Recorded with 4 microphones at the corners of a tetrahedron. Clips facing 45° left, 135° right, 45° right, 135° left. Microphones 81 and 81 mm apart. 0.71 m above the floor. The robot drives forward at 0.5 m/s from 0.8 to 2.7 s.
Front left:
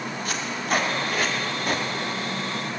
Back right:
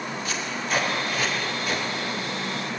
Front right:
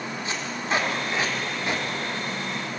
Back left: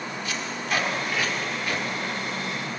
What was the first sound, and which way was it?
Tape being pulled, 15° left.